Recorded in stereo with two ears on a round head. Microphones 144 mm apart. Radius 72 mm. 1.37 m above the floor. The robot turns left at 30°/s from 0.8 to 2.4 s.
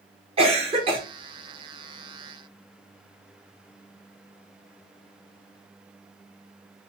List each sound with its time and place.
0.4 s a cough: 40° right (ahead or behind), 0.9 m; by 1.0 s 35° right (ahead or behind), 0.9 m